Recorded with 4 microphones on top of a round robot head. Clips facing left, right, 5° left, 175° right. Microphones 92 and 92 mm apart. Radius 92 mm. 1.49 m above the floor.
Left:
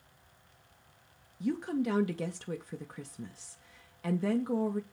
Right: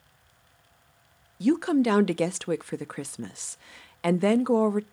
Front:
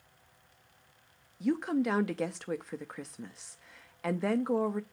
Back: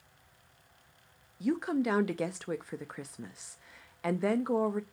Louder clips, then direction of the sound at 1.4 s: Right 10 dB, front 1 dB; 90° right.